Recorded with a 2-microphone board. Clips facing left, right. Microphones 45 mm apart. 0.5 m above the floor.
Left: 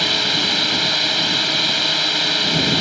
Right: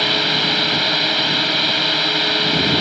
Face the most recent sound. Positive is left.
turn(degrees=-10)  # may be behind; listen again after turning